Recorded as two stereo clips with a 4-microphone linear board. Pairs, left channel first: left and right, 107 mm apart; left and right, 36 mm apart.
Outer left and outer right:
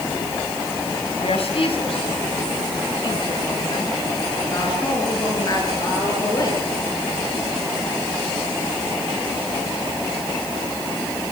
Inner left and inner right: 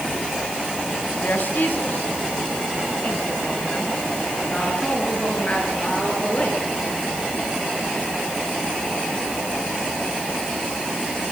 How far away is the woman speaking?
About 4.5 m.